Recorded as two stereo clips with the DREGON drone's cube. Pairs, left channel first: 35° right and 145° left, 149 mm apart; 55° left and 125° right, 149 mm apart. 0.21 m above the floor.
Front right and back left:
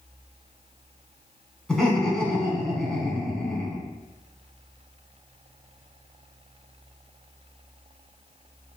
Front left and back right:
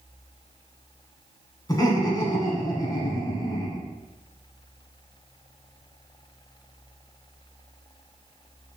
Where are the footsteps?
No footsteps in this recording.